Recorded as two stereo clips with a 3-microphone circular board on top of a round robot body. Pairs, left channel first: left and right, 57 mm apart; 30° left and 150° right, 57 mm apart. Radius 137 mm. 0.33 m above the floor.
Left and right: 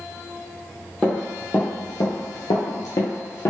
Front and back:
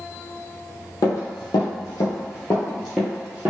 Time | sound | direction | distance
1.0 | running footsteps | 15° left | 1.0 m